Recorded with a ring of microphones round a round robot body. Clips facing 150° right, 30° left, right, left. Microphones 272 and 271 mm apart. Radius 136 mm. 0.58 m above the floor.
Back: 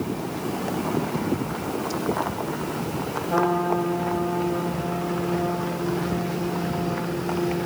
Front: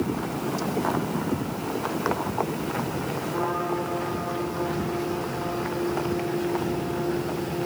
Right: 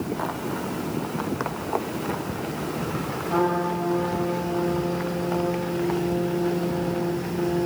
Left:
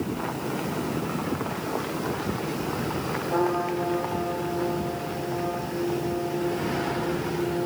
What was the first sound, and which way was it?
A trumpet, 140° right.